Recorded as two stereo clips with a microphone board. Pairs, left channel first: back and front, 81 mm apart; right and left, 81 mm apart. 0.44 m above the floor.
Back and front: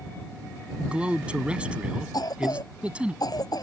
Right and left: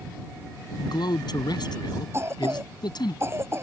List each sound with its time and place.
0.8 s a man speaking: 75° right
2.1 s a cough: 145° left